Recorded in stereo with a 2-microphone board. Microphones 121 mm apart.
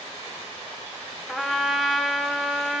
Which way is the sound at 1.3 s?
Centre (ahead or behind).